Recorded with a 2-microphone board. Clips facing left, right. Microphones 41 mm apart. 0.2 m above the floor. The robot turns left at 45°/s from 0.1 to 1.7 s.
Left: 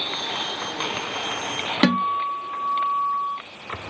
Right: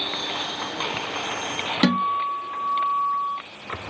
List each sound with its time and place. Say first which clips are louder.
1.8 s a guitar: left 1 dB; 25° left (ahead or behind), 1.1 m